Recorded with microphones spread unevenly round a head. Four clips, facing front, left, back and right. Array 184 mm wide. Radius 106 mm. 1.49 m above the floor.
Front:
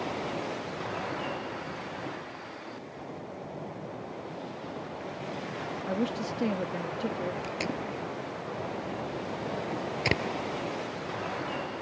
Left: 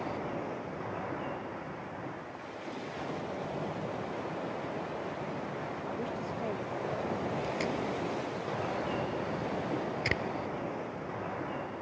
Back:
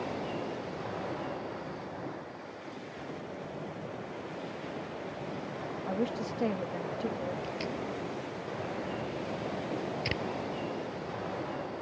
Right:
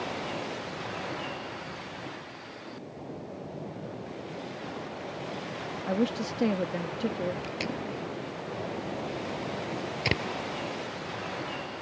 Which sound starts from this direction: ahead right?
Tape being pulled, at 7.4 s.